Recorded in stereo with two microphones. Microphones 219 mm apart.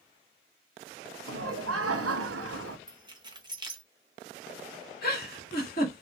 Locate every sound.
1.3 s laughter: 85° right, 0.6 m
2.9 s keys jangling: 20° right (ahead or behind), 0.6 m
5.0 s a giggle: 40° left (ahead or behind), 1.6 m